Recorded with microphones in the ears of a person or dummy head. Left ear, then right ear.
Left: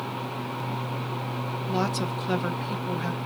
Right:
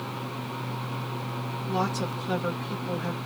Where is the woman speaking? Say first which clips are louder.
Even; 20° left (ahead or behind), 1.0 m.